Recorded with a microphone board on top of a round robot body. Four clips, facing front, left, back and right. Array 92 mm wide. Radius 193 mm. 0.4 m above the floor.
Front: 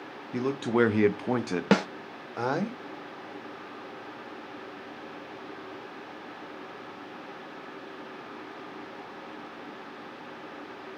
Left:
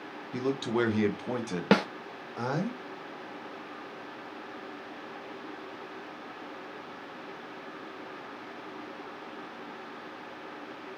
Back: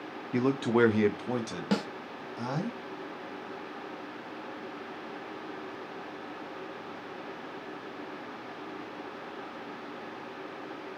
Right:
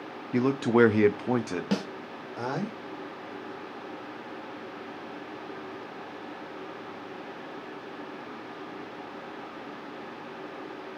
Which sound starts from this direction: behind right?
A man speaking, at 0.3 s.